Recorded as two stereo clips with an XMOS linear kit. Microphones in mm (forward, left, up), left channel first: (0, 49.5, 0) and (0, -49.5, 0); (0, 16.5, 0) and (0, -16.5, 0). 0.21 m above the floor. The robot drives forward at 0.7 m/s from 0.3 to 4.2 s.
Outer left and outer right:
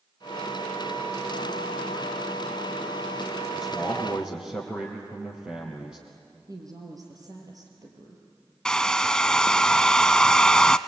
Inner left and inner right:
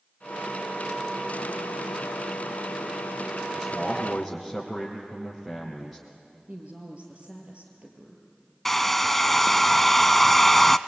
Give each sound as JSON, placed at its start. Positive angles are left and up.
{"t": 3.5, "sound": "a man speaking", "side_deg": -5, "distance_m": 4.5}
{"t": 6.5, "sound": "a woman speaking", "side_deg": -40, "distance_m": 5.0}
{"t": 8.7, "sound": "a hair dryer", "side_deg": 10, "distance_m": 0.5}